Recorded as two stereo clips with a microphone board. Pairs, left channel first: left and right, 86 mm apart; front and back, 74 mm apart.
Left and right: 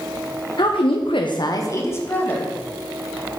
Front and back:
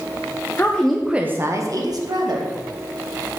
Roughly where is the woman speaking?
Ahead left.